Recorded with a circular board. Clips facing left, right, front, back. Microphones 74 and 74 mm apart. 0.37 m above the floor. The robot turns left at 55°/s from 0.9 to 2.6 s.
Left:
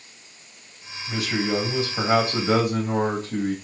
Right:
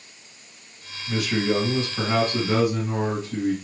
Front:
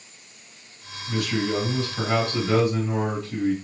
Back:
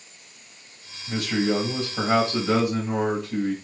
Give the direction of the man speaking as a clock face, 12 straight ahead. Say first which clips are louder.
Right 2 dB, back 2 dB; 6 o'clock.